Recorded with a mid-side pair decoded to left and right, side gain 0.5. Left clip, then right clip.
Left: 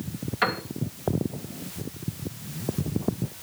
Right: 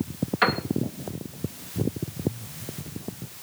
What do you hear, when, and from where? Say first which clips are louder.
0.4 s a piano: right 3 dB; 15° right, 2.5 m